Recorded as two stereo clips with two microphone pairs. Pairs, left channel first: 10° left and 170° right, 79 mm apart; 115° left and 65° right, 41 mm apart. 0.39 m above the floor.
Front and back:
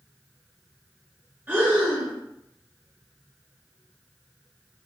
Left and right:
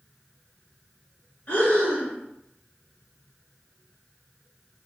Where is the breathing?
135° left, 1.3 m.